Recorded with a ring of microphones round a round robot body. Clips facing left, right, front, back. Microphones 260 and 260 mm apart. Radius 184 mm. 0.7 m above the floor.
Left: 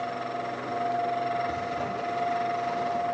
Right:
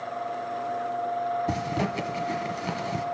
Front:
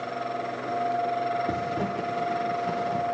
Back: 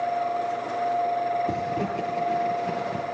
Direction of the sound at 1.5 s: 85° right.